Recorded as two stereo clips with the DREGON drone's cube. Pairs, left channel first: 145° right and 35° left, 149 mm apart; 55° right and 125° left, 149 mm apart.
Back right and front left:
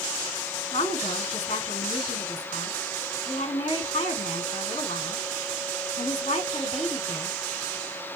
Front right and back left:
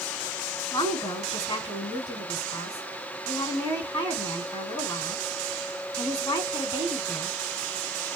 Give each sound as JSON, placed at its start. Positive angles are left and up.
{"t": 0.7, "sound": "a woman speaking", "azimuth_deg": -115, "distance_m": 2.5}